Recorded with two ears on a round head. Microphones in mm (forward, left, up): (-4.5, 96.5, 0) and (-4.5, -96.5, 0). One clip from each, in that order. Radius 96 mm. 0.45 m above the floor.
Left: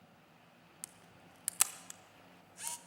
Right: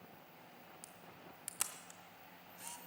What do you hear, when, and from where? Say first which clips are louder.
0.8 s a camera shutter: right 1 dB; 20° left (ahead or behind), 0.6 m